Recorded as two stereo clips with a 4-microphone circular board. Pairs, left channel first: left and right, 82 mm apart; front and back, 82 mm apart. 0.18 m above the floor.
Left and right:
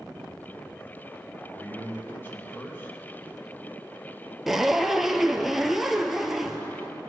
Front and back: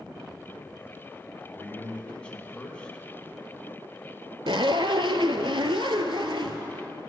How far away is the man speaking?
About 1.5 m.